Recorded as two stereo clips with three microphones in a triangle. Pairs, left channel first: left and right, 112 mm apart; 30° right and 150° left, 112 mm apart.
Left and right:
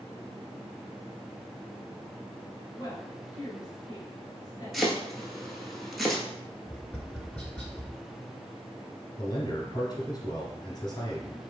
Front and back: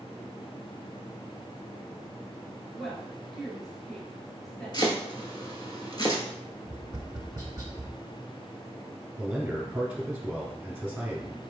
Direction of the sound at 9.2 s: 80° left.